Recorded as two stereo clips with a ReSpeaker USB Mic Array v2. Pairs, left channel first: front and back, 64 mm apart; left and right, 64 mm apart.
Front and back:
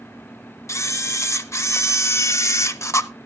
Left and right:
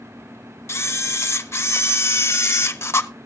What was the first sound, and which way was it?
A camera shutter, 45° left.